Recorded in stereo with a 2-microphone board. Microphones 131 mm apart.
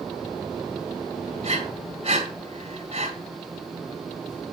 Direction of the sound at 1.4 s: 50° right (ahead or behind).